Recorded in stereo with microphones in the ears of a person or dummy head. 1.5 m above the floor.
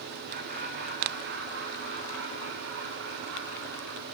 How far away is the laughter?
About 3 m.